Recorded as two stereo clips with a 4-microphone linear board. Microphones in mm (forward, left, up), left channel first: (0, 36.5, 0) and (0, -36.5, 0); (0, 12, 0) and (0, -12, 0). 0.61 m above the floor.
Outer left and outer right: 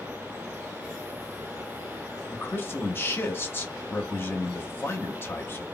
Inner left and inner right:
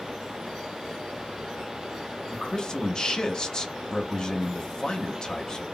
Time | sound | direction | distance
2.3 | a man speaking | 30° left (ahead or behind) | 0.6 m